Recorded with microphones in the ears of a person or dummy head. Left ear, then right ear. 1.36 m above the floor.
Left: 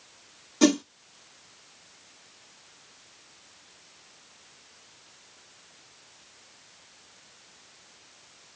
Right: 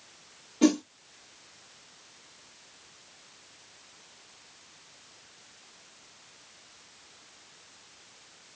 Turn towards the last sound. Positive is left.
turn(degrees=65)  # may be behind; listen again after turning